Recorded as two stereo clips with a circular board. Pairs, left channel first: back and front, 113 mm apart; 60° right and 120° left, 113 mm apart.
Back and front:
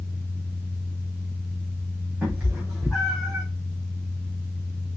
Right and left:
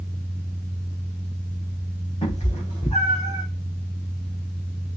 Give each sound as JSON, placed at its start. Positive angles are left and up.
{"t": 2.2, "sound": "a cat meowing", "azimuth_deg": -80, "distance_m": 6.0}